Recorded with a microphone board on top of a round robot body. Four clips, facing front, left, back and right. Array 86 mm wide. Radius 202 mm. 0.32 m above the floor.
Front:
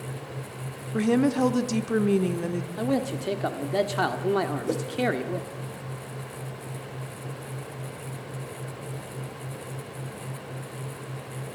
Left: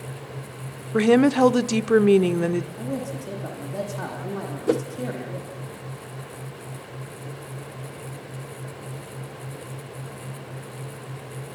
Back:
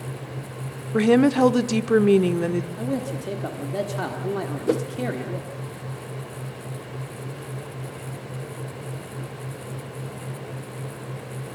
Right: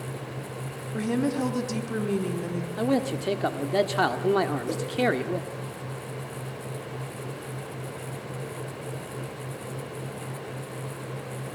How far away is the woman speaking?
About 1.3 m.